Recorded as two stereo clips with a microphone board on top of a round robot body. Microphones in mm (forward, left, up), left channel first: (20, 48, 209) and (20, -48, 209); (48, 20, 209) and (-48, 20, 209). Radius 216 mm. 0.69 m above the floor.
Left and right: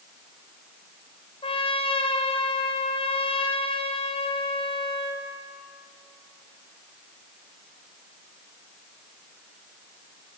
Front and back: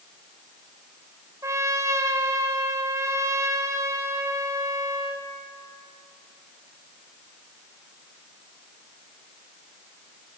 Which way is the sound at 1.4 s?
120° left.